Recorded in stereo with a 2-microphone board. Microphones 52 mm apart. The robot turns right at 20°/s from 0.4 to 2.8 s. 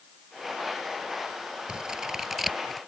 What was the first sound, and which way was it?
Scissors, 15° right (ahead or behind).